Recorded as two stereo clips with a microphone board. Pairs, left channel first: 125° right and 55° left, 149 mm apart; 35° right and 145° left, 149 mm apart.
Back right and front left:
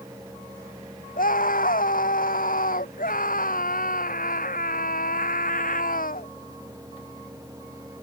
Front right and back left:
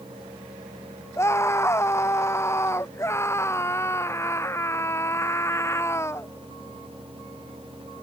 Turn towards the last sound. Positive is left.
turn(degrees=-105)